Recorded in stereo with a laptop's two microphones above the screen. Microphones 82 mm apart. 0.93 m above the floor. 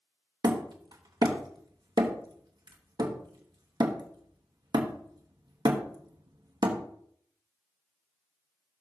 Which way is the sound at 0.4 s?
60° right (ahead or behind).